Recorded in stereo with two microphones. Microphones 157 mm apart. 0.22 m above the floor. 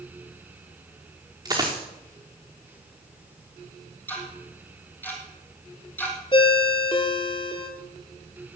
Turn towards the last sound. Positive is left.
turn(degrees=35)  # may be behind; listen again after turning